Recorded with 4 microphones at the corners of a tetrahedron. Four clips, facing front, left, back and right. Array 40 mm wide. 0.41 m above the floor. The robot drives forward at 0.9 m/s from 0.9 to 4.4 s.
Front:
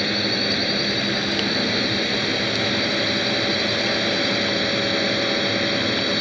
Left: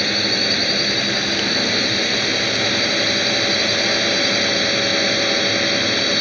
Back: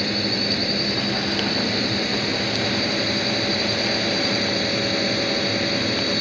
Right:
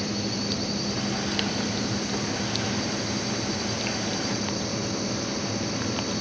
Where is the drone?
70° left; by 6.2 s 75° left.